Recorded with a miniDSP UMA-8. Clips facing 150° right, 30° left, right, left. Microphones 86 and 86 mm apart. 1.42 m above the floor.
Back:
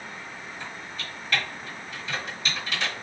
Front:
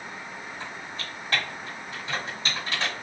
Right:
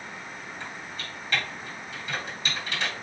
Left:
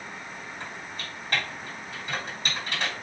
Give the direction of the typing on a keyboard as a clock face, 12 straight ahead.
10 o'clock.